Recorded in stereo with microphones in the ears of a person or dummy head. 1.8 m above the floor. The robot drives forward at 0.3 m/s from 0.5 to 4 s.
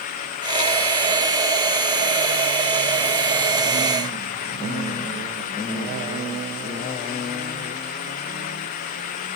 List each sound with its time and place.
Only background noise.